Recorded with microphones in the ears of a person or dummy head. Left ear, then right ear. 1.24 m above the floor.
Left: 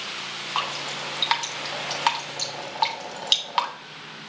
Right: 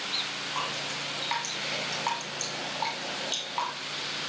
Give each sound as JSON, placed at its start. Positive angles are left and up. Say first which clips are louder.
{"t": 0.6, "sound": "dripping", "louder": "left 6 dB", "side_deg": 50, "distance_m": 2.5}